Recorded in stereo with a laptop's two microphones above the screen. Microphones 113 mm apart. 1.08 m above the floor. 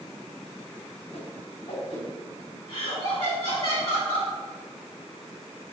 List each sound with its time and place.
1.1 s a whoosh: 60° left (ahead or behind), 4 m
2.7 s laughter: 45° left (ahead or behind), 3.5 m